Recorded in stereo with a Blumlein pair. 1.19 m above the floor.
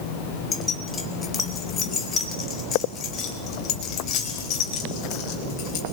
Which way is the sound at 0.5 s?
15° left.